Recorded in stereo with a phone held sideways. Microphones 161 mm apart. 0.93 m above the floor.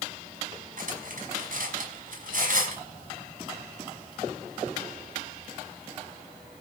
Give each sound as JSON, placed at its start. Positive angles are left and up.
{"t": 0.8, "sound": "cutlery clinking", "side_deg": -60, "distance_m": 5.0}